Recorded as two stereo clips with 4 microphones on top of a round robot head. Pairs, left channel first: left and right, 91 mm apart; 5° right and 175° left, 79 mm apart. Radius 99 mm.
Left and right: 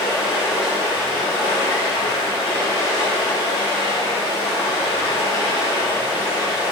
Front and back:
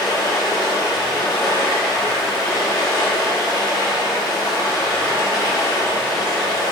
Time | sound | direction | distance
0.0 | running water | 35° left | 1.7 m